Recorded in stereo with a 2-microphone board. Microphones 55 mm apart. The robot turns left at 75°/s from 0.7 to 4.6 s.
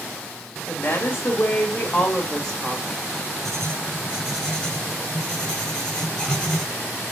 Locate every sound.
0.7 s a woman speaking: 100° left, 1.5 m; by 2.9 s 60° right, 1.5 m
3.5 s writing: 120° right, 2 m; by 6.7 s 155° left, 2 m